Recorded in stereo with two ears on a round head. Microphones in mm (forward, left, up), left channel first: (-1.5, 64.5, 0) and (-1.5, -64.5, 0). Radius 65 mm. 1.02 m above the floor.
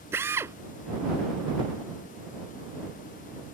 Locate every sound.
0.1 s a drill: 20° right (ahead or behind)